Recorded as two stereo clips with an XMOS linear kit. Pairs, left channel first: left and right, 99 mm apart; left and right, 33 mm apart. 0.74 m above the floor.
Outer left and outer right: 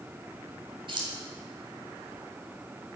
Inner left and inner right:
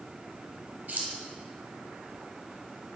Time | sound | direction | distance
0.9 | keys jangling | 60° right (ahead or behind) | 2.5 m